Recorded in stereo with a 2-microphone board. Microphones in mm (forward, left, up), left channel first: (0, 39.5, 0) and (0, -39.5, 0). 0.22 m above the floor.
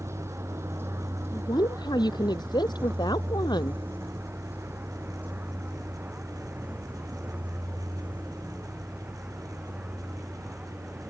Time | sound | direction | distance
0.0 | a vehicle | 35° right (ahead or behind) | ?
1.3 | a woman speaking | 65° left (ahead or behind) | ?